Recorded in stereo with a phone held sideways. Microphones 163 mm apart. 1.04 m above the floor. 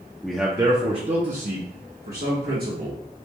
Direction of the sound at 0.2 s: 5° left (ahead or behind).